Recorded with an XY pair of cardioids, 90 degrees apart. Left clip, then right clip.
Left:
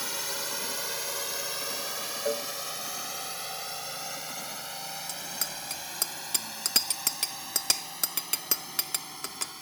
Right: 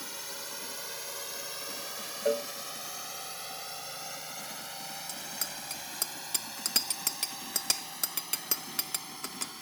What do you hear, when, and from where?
0.0 s a drone: 60° left; by 9.6 s 15° left
2.2 s a cowbell: 15° right
5.1 s a bicycle bell: 30° left